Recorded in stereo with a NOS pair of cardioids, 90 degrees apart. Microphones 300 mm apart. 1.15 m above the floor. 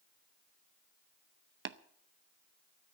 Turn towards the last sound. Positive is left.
turn(degrees=-40)